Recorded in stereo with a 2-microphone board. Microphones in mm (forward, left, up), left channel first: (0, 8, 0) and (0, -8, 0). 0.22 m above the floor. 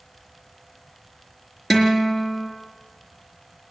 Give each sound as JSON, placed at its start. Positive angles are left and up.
{"t": 1.7, "sound": "a guitar", "side_deg": 15, "distance_m": 4.0}